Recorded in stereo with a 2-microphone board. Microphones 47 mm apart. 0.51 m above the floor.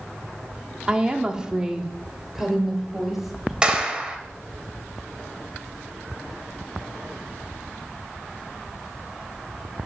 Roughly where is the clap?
Centre.